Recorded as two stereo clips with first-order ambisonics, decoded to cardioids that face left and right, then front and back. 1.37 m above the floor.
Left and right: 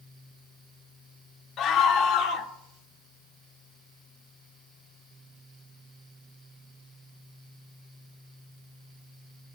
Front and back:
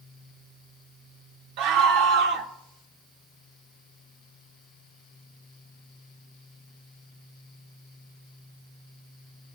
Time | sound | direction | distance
1.6 | a scream | 150° left | 1.3 m